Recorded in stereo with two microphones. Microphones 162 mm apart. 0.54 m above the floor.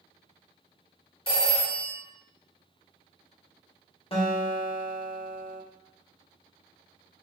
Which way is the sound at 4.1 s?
35° left (ahead or behind).